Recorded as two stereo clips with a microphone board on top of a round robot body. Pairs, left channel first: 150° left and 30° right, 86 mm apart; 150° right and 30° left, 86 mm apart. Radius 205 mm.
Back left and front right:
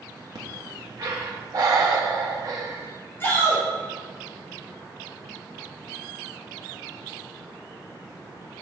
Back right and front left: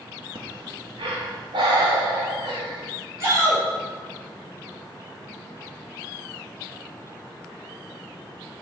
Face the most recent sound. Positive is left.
turn(degrees=85)